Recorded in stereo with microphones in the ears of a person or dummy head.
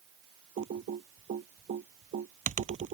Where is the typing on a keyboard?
45° right (ahead or behind).